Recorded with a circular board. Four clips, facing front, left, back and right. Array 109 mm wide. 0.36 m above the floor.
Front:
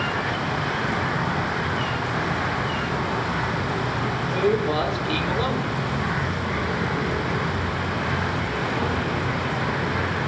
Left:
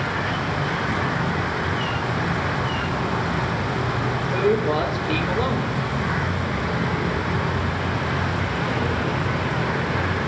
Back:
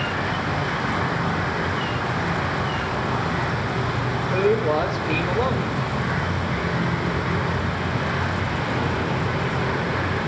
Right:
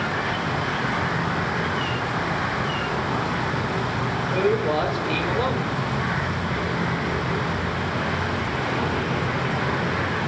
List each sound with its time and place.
4.3 s a man speaking: straight behind, 0.9 m